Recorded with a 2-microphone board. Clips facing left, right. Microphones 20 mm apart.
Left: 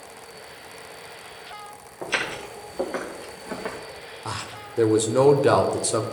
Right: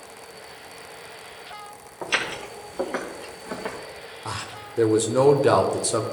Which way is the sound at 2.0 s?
20° right (ahead or behind).